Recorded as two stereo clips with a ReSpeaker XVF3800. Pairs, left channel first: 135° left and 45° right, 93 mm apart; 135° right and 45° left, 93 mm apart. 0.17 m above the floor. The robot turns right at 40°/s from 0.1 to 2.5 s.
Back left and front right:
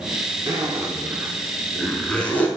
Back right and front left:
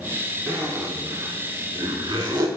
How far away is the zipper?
About 0.5 m.